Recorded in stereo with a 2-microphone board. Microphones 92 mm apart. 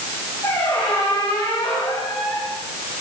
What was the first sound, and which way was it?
A squeak, 20° left (ahead or behind).